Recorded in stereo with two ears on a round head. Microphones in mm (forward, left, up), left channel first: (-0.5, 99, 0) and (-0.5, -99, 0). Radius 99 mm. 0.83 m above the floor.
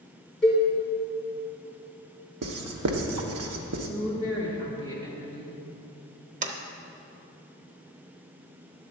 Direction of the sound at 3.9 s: 20° right (ahead or behind).